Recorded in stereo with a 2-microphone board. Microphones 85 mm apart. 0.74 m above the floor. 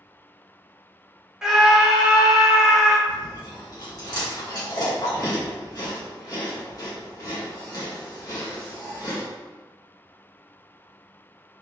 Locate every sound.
1.4 s a scream: 10° right (ahead or behind), 1.0 m
3.1 s chewing: 45° left (ahead or behind), 1.5 m